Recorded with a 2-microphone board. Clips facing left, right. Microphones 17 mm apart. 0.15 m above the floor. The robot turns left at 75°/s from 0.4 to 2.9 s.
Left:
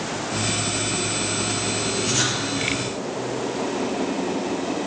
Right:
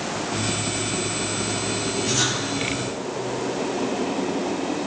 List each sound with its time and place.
2.0 s writing: 10° left (ahead or behind), 3.5 m; by 2.4 s 35° left (ahead or behind), 3.5 m